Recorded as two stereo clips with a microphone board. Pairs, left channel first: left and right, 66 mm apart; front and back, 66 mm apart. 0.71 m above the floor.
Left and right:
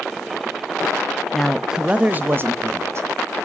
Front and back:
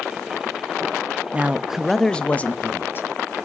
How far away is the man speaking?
About 0.5 m.